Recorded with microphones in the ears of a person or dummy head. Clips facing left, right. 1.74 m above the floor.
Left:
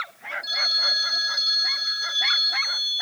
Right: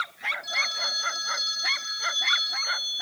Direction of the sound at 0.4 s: 25° left (ahead or behind).